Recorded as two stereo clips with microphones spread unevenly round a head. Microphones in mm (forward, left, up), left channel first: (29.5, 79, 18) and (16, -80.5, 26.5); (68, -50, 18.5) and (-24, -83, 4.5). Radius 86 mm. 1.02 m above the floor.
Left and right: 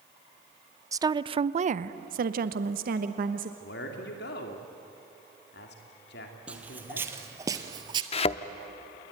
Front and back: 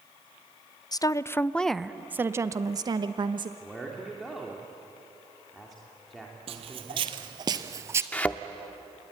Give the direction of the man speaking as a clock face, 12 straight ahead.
8 o'clock.